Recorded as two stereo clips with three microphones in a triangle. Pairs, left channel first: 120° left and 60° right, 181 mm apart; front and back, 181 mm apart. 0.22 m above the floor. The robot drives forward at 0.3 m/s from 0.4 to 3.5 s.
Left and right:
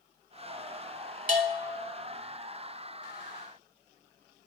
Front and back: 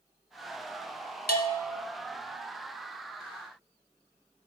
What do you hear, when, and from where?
1.3 s a bell: 20° right, 1.0 m; by 1.8 s 25° right, 0.9 m